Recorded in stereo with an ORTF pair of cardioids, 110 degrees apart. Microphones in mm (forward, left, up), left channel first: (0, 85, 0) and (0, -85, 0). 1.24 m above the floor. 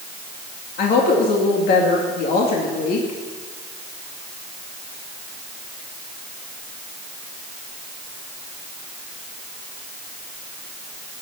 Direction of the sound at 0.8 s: 65° left.